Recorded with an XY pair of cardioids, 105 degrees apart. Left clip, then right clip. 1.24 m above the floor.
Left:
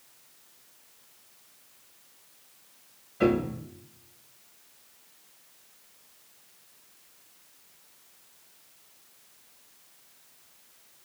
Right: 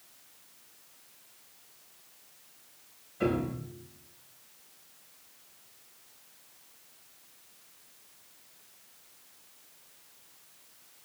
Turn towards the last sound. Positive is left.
turn(degrees=40)